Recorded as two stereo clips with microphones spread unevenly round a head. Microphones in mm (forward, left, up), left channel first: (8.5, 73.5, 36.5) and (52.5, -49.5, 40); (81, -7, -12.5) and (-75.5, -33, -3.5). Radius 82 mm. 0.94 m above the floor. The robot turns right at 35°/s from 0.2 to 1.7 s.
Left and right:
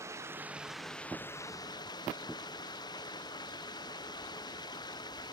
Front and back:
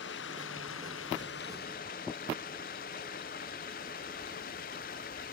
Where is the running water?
Straight ahead; by 5.3 s 50° left.